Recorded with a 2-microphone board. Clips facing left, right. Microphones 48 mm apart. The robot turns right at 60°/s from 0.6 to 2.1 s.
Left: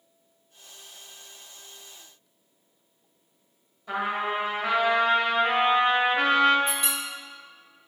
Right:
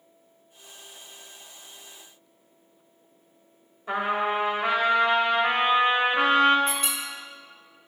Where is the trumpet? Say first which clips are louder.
Right 2 dB; 35° right (ahead or behind), 1.3 m.